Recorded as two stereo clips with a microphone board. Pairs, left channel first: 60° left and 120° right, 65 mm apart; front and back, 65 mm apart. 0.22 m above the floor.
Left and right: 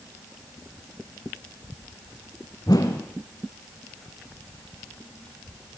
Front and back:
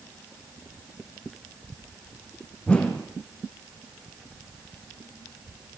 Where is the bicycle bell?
No bicycle bell in this recording.